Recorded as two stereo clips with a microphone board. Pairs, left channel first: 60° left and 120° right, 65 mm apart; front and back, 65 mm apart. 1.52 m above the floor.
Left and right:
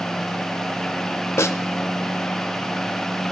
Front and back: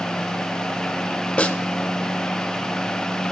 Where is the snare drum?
65° left, 0.6 m.